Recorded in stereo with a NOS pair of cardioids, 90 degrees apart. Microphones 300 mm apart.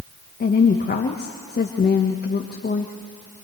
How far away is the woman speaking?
About 1.5 m.